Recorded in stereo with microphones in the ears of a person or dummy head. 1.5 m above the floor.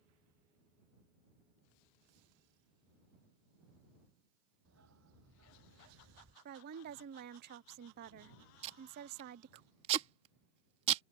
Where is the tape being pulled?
35° right (ahead or behind).